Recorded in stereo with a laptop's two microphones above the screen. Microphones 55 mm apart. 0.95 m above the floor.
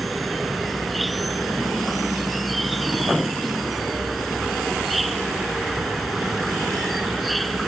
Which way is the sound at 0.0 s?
Centre (ahead or behind).